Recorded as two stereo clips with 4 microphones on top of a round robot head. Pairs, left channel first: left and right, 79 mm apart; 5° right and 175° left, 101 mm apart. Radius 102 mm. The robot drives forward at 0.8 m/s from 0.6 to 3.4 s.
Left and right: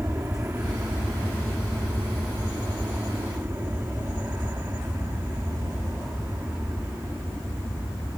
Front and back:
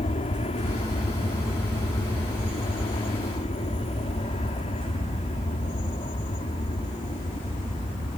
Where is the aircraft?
25° right.